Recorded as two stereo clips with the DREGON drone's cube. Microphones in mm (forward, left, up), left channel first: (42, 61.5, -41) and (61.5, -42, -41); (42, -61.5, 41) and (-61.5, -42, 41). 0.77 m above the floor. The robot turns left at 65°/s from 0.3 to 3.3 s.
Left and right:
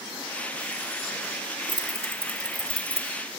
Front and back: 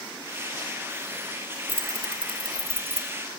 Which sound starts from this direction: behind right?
Keys jangling, at 1.7 s.